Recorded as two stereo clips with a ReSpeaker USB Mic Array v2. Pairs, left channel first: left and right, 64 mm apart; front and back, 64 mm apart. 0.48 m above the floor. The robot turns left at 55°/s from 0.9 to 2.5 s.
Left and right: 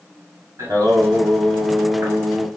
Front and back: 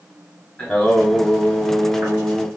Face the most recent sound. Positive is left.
turn(degrees=-160)